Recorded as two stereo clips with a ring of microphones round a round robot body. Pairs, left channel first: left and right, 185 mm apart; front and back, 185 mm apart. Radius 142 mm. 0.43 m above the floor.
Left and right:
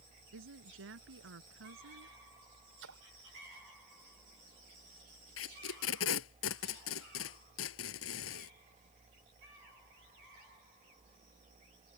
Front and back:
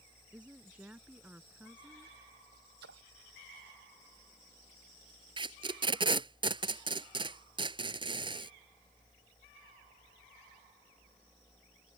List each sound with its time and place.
0.3 s a woman speaking: 95° right
2.8 s a splash: 130° right
5.4 s tape being pulled: 115° left